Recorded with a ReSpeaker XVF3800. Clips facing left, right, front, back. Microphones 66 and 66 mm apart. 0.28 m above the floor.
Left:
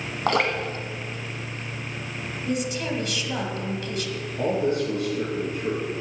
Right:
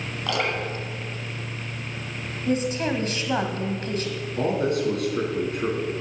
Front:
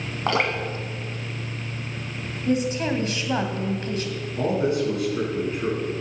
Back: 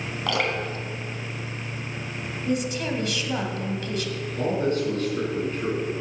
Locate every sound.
0.3 s dripping: 50° left, 1.4 m
2.5 s a woman speaking: 50° right, 1.6 m
4.4 s a man speaking: 80° right, 3.5 m